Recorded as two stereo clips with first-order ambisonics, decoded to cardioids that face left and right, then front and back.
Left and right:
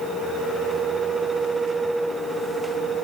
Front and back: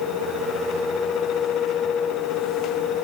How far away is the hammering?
No hammering in this recording.